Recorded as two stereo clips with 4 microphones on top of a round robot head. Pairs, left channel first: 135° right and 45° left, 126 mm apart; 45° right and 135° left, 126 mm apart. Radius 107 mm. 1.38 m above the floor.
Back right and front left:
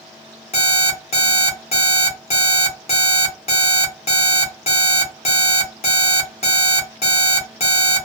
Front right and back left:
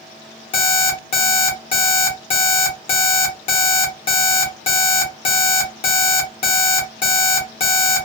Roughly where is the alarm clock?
Right.